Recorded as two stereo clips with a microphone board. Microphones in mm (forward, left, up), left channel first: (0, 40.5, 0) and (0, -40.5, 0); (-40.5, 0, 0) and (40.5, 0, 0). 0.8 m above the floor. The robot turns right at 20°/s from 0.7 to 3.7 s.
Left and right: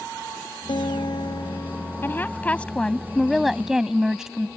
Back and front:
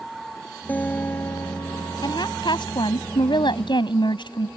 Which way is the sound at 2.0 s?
155° left.